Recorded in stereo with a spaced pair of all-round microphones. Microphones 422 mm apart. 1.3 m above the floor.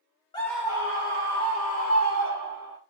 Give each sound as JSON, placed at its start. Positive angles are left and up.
{"t": 0.3, "sound": "a scream", "side_deg": 10, "distance_m": 0.5}